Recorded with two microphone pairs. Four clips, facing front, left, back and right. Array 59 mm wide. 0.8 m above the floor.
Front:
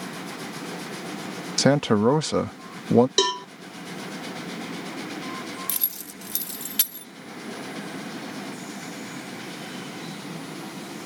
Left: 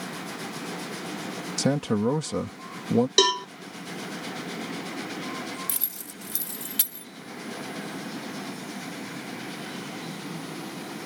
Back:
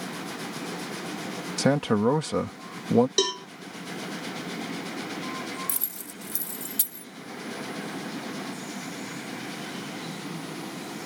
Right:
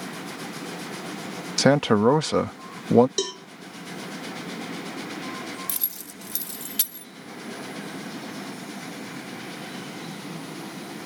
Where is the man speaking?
80° right.